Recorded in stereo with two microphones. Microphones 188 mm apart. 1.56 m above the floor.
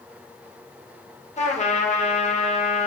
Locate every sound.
1.4 s a trumpet: 40° left (ahead or behind), 0.5 m